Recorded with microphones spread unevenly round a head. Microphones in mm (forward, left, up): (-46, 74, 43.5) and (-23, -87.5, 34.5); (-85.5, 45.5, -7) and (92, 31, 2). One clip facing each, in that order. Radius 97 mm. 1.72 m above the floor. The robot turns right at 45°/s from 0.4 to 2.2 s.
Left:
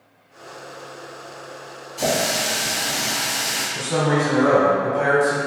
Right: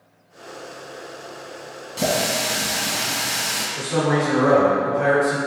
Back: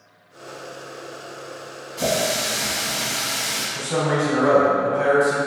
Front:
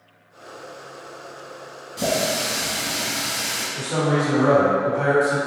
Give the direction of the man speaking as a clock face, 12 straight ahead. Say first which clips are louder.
Even, even; 8 o'clock.